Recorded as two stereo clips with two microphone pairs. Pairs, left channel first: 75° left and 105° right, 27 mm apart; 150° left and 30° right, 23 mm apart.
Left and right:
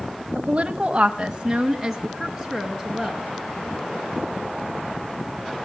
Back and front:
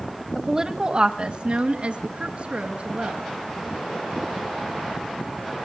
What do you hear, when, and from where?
0.3 s a woman speaking: 90° right, 1.3 m; by 3.2 s straight ahead, 4 m